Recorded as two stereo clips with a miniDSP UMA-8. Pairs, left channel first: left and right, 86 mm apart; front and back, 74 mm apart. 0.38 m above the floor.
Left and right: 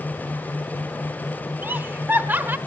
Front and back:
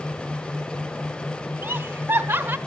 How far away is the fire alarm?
I don't hear a fire alarm.